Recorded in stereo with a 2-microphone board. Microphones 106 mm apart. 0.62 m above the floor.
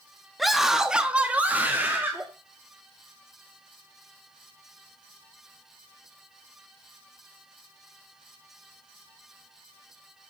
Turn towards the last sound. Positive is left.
turn(degrees=-20)  # may be behind; listen again after turning